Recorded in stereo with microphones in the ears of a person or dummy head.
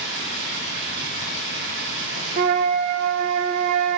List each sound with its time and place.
0.0 s running water: 65° right (ahead or behind), 6.5 m
2.4 s a flute: 50° right (ahead or behind), 0.8 m